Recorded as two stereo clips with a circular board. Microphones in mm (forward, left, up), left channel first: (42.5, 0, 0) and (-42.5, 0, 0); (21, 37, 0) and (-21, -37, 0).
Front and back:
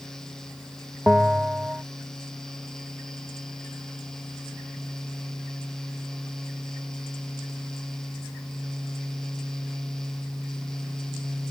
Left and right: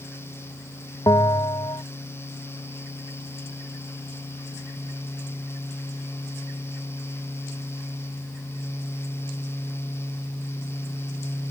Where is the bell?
100° left.